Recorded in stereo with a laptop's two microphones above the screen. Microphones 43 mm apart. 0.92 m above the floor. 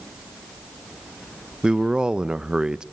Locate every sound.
1.6 s a man speaking: 20° right (ahead or behind), 0.5 m